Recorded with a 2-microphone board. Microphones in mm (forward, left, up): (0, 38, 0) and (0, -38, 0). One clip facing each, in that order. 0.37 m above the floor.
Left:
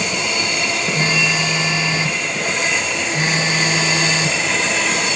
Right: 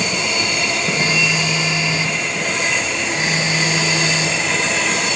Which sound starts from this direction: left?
A phone buzzing, at 0.9 s.